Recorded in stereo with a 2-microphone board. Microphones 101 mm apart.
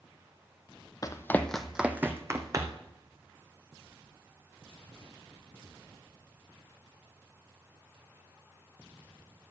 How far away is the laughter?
No laughter in this recording.